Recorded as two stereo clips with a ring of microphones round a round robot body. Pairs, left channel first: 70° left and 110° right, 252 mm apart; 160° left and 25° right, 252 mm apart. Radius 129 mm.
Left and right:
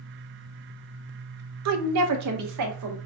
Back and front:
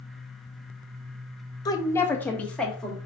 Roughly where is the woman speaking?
Behind right.